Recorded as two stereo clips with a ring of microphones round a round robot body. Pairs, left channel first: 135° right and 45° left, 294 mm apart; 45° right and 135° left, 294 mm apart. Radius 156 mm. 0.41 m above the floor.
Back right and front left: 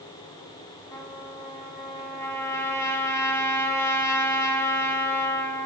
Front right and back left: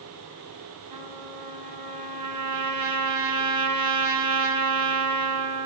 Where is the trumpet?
145° left, 1.8 m.